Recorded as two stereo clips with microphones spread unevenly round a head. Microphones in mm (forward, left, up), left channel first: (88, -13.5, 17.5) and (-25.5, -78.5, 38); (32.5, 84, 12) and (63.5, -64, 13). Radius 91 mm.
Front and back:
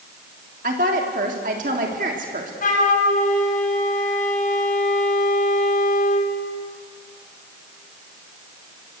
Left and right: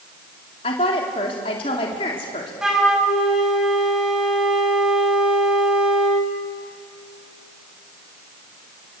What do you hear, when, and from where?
0.6 s a woman speaking: 165° left, 3 m
2.6 s a flute: 10° left, 4 m